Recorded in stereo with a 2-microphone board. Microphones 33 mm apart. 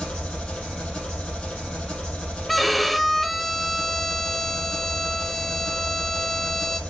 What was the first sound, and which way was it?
An engine running, 40° left (ahead or behind).